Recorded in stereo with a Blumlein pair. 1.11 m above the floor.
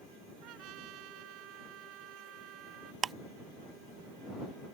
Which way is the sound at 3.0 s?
20° right.